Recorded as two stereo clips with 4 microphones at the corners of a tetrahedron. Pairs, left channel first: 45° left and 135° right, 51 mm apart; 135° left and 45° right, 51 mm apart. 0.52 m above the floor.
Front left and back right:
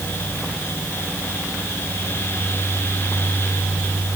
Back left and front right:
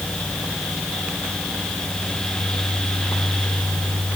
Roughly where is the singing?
No singing in this recording.